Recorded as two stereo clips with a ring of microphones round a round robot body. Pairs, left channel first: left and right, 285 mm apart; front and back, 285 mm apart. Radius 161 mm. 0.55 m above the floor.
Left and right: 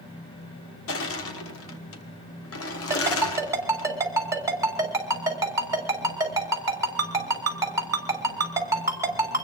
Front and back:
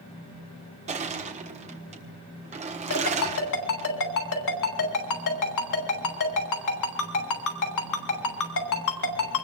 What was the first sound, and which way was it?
Crushing, 120° left.